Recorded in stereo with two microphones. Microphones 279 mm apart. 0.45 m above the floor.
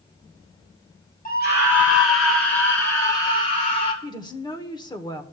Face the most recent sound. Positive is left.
turn(degrees=15)  # may be behind; listen again after turning